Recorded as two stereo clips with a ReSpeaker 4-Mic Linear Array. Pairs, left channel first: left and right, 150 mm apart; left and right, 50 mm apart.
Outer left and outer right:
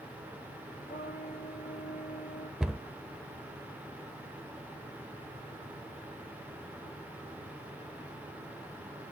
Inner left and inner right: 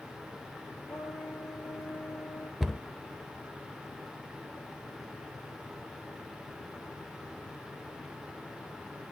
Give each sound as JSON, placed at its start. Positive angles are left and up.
{"t": 0.9, "sound": "a trumpet", "side_deg": 85, "distance_m": 5.5}
{"t": 2.6, "sound": "a cupboard door", "side_deg": -5, "distance_m": 0.8}